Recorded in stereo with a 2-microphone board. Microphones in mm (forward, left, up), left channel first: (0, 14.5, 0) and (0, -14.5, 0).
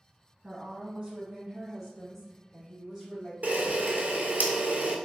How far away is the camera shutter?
About 0.7 m.